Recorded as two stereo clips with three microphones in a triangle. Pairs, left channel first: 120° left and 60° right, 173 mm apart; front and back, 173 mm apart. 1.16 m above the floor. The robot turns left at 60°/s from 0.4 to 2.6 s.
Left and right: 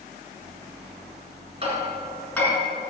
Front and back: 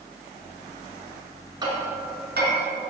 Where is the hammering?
110° right, 3.5 m; by 2.5 s 170° right, 3.5 m.